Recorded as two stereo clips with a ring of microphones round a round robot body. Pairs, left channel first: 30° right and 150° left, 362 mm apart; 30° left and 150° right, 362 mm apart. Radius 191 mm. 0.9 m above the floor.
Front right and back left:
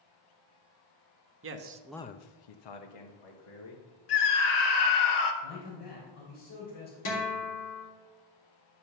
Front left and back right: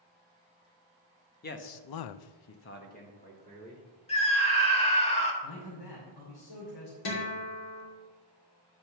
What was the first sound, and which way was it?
A man speaking, 95° left.